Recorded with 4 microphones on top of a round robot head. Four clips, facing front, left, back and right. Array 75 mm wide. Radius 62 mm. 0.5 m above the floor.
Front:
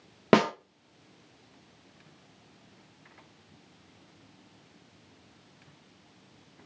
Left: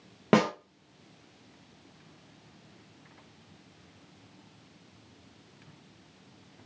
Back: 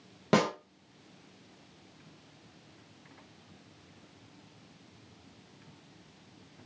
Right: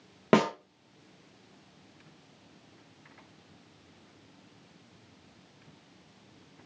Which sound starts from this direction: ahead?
A snare drum, at 0.3 s.